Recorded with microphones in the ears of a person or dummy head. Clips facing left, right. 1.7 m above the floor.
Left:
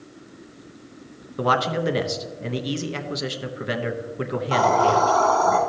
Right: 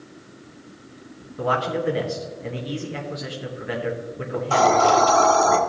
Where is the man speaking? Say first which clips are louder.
Left 1 dB; 65° left (ahead or behind), 0.9 m.